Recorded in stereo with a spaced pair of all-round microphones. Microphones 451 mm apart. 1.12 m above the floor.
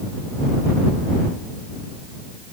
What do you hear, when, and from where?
Only background noise.